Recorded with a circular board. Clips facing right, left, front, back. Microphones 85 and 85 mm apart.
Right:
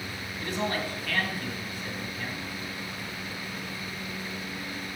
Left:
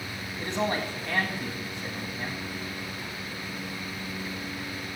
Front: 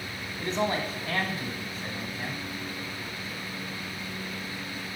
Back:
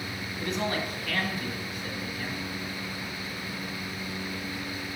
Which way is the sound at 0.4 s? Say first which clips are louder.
Left 2 dB, front 2 dB; 35° left.